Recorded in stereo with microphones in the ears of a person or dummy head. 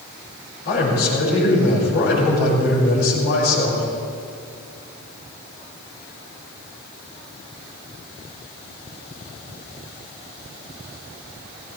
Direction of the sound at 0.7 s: 70° left (ahead or behind).